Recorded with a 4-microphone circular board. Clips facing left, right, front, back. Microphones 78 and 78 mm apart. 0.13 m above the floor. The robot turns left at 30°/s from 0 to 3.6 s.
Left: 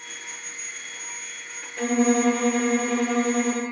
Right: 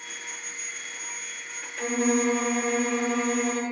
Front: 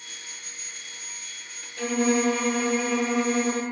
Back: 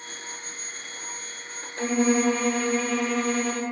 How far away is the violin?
About 4 m.